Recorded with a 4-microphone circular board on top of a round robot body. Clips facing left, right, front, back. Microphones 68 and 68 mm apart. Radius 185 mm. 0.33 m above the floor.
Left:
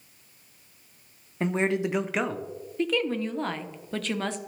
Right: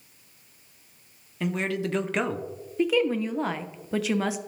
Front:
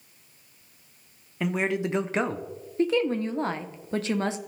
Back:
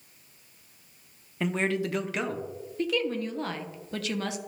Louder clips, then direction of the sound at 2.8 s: Right 3 dB, front 5 dB; 15° right.